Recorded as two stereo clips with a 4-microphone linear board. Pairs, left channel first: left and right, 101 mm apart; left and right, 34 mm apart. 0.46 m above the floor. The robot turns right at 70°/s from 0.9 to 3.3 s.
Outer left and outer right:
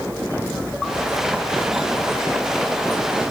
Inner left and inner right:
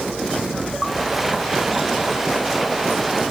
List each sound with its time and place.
Only background noise.